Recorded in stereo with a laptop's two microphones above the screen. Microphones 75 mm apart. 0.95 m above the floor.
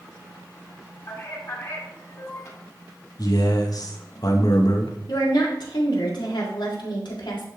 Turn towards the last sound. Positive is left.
turn(degrees=80)